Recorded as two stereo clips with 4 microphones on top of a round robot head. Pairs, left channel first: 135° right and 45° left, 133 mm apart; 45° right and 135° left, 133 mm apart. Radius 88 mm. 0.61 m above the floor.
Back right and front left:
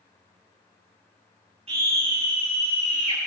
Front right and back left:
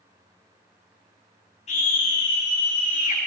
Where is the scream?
5° right, 5 m; by 3.2 s 5° left, 4.5 m.